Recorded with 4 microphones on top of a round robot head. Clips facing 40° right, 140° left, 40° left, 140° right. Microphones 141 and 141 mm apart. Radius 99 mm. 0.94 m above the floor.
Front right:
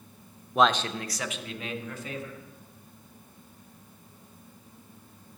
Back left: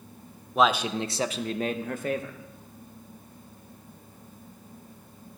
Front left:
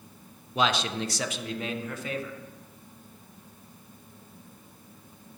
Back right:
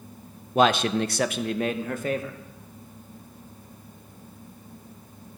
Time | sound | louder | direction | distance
0.6 | a man speaking | back left 1 dB, back right 7 dB | 125° right | 0.5 m